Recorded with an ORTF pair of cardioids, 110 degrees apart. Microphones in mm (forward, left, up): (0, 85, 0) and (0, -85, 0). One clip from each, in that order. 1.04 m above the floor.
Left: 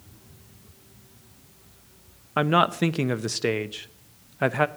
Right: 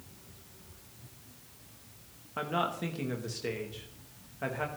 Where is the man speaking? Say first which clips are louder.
Left 11 dB; 65° left, 0.9 m.